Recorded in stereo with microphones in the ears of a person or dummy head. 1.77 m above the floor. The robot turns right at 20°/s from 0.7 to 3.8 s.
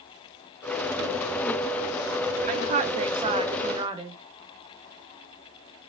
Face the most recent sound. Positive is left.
turn(degrees=-25)  # may be behind; listen again after turning